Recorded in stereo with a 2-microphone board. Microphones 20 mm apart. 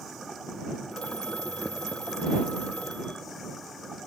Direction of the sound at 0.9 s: 85° left.